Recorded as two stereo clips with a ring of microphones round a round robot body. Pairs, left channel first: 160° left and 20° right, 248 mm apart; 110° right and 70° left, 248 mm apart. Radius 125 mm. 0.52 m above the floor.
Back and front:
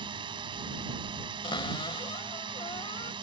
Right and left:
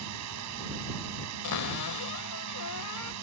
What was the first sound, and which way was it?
A drone, 50° left.